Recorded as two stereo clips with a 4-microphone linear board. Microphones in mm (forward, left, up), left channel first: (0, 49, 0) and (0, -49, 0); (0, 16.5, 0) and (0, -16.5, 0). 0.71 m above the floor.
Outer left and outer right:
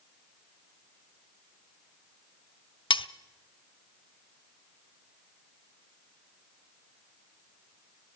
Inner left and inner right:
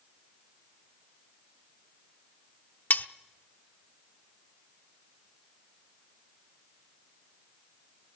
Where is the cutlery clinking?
60° left (ahead or behind), 0.7 m.